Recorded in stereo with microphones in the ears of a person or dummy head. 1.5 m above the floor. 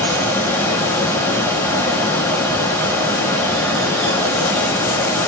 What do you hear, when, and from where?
0.0 s a fan: 10° left (ahead or behind), 0.9 m